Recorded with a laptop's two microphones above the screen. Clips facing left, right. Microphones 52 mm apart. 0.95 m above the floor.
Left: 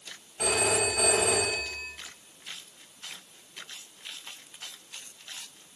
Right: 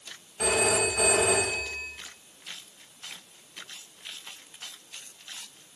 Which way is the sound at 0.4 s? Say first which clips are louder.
Right 2 dB; 5° left (ahead or behind).